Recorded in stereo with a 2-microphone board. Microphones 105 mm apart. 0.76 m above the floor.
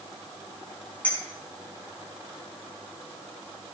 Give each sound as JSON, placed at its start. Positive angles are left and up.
{"t": 1.0, "sound": "a clink", "side_deg": 15, "distance_m": 5.5}